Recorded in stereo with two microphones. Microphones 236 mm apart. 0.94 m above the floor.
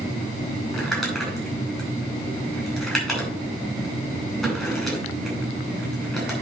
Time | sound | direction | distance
0.7 | crumpling | 5° left (ahead or behind) | 5 m